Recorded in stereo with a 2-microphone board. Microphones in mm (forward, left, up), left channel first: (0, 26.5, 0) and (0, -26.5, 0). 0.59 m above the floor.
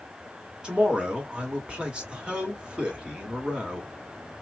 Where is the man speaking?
20° right (ahead or behind), 1.7 m.